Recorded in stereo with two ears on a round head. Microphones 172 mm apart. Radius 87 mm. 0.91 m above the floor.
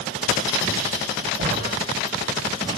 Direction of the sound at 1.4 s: 35° right (ahead or behind).